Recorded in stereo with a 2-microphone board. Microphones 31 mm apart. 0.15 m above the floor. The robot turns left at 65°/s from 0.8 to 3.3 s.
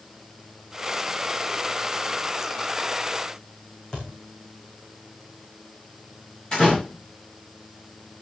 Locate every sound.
3.9 s a thud: 25° left (ahead or behind), 6 m
6.5 s a door slam: 30° left (ahead or behind), 9.5 m